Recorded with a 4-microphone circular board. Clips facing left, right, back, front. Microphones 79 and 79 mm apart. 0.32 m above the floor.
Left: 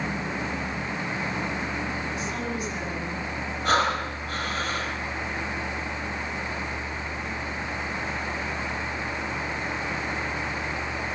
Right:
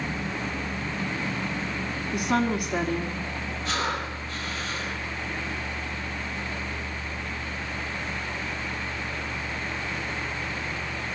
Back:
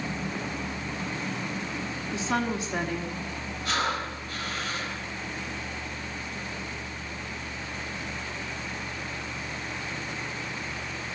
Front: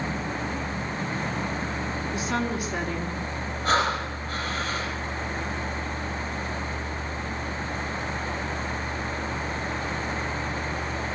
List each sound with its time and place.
2.1 s a woman speaking: 115° right, 3.5 m
3.6 s breathing: 55° left, 9.5 m